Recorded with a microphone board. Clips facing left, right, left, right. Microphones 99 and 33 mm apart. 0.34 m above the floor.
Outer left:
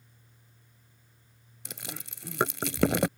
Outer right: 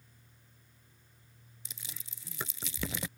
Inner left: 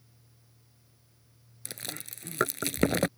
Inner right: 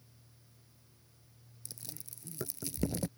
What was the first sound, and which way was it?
Chewing, 70° left (ahead or behind).